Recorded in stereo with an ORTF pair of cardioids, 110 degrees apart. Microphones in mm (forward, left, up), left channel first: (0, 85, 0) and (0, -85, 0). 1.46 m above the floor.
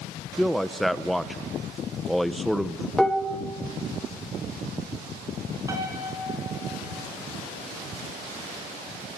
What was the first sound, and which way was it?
A man speaking, straight ahead.